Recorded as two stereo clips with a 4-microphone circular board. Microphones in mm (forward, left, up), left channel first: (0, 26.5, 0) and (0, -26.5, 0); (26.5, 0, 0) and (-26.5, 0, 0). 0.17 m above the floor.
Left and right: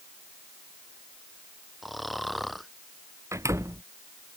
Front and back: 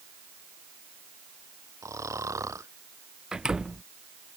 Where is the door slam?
105° right.